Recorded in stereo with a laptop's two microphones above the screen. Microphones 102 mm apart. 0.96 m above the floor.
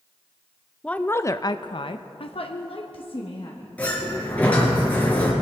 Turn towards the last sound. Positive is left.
turn(degrees=15)  # may be behind; listen again after turning